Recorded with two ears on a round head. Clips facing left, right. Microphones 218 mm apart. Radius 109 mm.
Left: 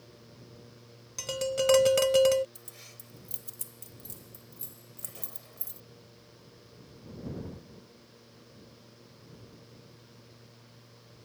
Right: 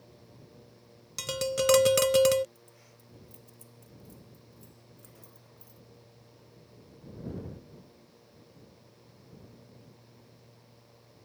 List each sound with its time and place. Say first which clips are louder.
1.2 s tapping: even; 25° right (ahead or behind)
2.5 s keys jangling: left 3 dB; 80° left